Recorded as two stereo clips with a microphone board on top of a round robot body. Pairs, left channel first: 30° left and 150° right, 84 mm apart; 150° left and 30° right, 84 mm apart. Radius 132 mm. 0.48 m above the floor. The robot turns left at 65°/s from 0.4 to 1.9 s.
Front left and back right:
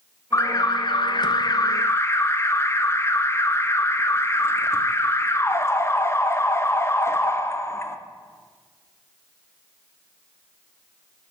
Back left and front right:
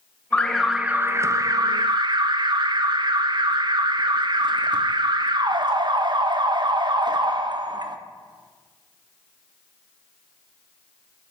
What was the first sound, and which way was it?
An alarm, 75° left.